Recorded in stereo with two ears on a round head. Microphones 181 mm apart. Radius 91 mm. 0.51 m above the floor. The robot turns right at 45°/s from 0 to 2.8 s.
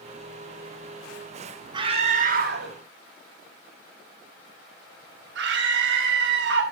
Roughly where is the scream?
Right.